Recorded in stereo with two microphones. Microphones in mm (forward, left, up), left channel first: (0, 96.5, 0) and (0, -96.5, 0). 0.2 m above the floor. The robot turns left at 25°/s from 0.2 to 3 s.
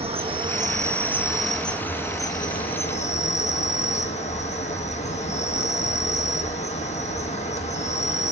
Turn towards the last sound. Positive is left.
turn(degrees=140)